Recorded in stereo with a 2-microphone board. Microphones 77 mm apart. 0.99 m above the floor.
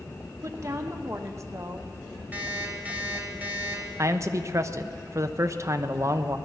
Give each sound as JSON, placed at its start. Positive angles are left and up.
{"t": 0.4, "sound": "a woman speaking", "side_deg": -40, "distance_m": 1.0}
{"t": 2.3, "sound": "an alarm clock", "side_deg": -20, "distance_m": 2.5}
{"t": 4.0, "sound": "a man speaking", "side_deg": -40, "distance_m": 0.8}